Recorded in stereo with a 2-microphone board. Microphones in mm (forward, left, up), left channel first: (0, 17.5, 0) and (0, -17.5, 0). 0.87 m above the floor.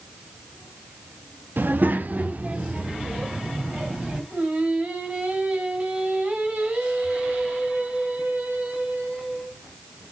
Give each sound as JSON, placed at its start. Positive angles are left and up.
{"t": 1.6, "sound": "a child speaking", "side_deg": -70, "distance_m": 0.8}
{"t": 4.3, "sound": "singing", "side_deg": -50, "distance_m": 4.5}